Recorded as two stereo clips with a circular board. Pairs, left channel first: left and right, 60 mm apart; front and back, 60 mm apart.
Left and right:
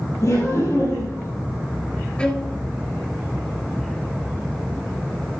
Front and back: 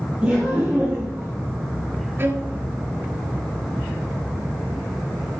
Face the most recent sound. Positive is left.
turn(degrees=155)